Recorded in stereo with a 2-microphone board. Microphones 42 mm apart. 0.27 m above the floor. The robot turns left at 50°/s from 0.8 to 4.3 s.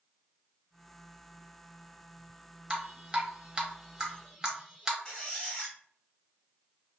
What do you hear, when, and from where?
2.7 s dripping: 20° right (ahead or behind), 0.6 m
5.0 s a squeak: 15° left (ahead or behind), 1.0 m